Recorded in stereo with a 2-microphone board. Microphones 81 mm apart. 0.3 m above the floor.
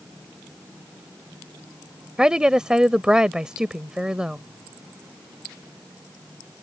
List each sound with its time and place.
2.2 s a woman speaking: 10° right (ahead or behind)